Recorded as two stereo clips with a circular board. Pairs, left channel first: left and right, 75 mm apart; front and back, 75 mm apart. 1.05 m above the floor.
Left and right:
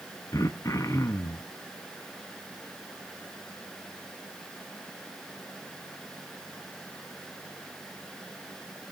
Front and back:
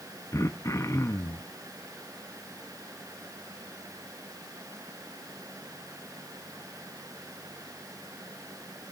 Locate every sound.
0.3 s throat clearing: 45° left, 0.7 m